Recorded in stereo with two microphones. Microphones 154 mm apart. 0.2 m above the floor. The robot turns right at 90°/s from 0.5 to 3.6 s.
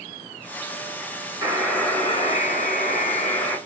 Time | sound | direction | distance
1.4 | a buzzer | 30° right | 3 m